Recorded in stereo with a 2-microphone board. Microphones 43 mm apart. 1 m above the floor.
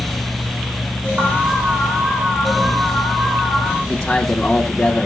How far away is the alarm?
About 3.5 m.